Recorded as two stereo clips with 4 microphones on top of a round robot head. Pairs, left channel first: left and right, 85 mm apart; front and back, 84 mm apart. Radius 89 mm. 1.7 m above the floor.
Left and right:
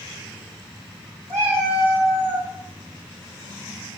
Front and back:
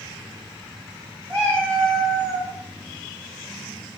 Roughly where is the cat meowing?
Ahead right.